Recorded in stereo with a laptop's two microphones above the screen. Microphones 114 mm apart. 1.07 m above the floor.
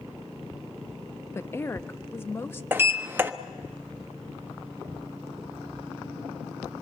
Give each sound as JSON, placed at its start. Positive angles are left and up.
{"t": 1.4, "sound": "a woman speaking", "side_deg": 25, "distance_m": 0.8}
{"t": 2.7, "sound": "a sliding door", "side_deg": -20, "distance_m": 1.0}